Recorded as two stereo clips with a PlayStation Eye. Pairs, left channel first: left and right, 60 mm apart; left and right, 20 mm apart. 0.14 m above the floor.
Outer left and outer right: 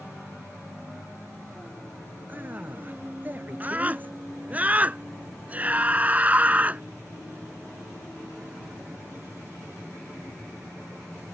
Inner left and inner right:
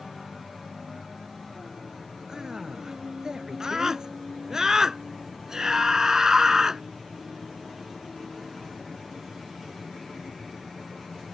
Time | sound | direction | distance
2.3 | a man speaking | 35° right (ahead or behind) | ?
3.6 | a scream | 25° right (ahead or behind) | ?